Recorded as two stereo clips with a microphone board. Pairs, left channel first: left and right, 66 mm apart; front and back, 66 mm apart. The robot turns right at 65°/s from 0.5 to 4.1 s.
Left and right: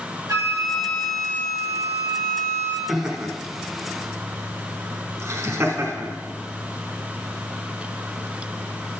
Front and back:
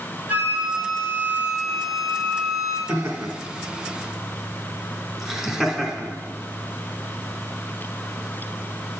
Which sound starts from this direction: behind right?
A flute, at 0.3 s.